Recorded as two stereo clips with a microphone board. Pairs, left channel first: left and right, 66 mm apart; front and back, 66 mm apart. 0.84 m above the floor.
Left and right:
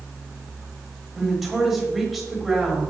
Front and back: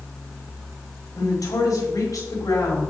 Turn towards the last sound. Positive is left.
turn(degrees=-5)